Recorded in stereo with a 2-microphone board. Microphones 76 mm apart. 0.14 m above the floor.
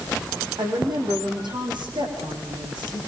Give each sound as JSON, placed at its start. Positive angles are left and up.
{"t": 0.6, "sound": "a woman speaking", "side_deg": -80, "distance_m": 7.0}